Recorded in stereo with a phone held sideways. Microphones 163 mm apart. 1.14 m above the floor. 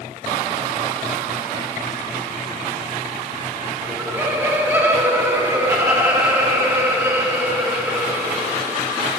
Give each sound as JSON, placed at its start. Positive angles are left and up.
{"t": 3.8, "sound": "laughter", "side_deg": -15, "distance_m": 1.9}